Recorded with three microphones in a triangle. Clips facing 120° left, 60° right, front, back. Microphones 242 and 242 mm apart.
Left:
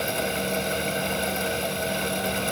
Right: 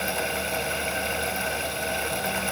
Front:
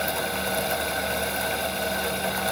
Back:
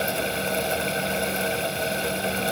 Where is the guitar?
No guitar in this recording.